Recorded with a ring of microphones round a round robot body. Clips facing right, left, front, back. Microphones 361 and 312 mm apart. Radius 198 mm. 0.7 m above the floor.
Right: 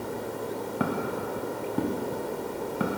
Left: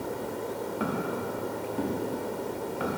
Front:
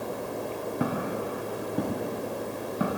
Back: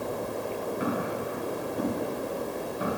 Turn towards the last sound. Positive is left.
turn(degrees=-45)